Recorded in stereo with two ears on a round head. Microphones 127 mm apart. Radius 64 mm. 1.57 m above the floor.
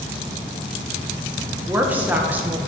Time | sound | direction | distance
1.7 | a woman speaking | 15° right (ahead or behind) | 1.5 m